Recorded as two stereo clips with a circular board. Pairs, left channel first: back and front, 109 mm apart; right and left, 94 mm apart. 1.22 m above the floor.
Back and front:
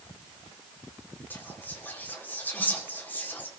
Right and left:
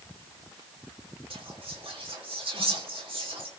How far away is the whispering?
About 4 m.